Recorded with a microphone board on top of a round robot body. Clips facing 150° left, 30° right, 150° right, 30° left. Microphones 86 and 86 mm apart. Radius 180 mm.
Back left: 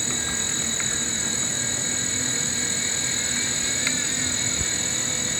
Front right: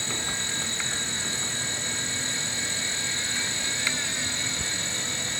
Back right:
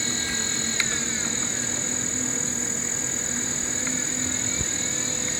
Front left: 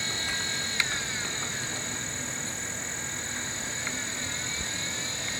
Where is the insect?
140° right.